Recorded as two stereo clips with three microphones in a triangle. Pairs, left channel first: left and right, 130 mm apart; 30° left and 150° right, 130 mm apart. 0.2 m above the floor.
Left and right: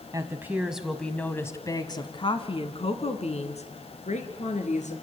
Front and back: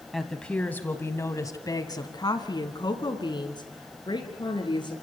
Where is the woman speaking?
60° right, 1.3 m; by 4.9 s 80° left, 3.5 m.